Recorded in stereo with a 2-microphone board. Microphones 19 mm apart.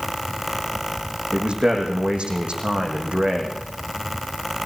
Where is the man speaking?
70° right (ahead or behind), 6.5 m.